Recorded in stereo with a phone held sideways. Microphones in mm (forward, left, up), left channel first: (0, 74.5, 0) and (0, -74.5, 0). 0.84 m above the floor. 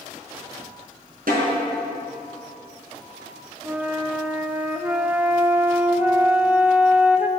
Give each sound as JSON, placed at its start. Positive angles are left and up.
{"t": 1.3, "sound": "a snare drum", "side_deg": -80, "distance_m": 5.0}
{"t": 3.6, "sound": "a flute", "side_deg": -10, "distance_m": 0.6}